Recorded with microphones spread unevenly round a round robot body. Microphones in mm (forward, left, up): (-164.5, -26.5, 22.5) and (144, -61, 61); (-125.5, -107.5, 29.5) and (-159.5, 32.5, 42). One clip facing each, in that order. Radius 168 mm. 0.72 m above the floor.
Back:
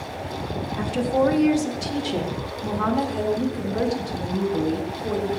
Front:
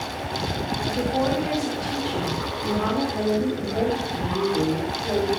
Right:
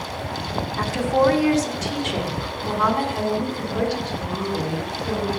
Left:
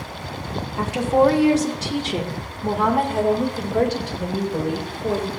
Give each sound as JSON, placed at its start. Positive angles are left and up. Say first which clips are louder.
{"t": 0.8, "sound": "a woman speaking", "louder": "back 4 dB, left 2 dB", "azimuth_deg": 175, "distance_m": 2.0}